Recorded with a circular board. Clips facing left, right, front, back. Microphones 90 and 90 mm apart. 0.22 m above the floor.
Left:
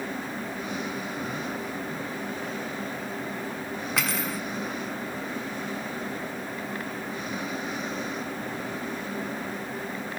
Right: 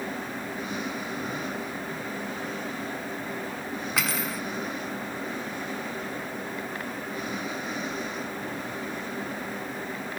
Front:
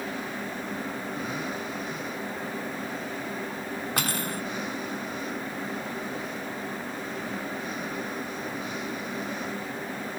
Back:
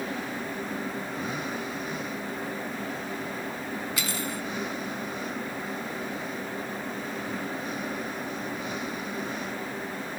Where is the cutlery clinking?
Straight ahead.